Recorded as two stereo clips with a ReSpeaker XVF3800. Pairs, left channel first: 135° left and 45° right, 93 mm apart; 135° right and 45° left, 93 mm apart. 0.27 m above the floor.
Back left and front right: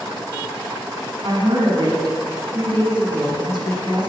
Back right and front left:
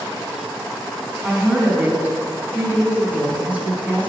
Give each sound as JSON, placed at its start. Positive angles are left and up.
{"t": 1.2, "sound": "a woman speaking", "azimuth_deg": -25, "distance_m": 2.5}